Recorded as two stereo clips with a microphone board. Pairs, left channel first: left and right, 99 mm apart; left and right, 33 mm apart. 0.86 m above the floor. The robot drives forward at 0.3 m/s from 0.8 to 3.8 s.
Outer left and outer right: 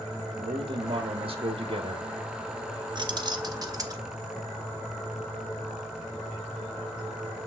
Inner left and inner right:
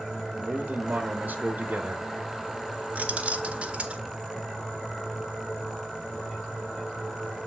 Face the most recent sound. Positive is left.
turn(degrees=-40)  # may be behind; listen again after turning